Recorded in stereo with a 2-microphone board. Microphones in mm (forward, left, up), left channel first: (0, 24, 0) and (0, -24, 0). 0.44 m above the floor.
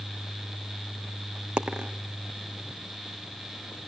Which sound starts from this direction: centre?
A dropped coin, at 1.6 s.